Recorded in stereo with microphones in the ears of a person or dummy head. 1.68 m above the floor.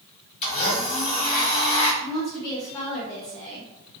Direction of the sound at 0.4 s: 35° left (ahead or behind).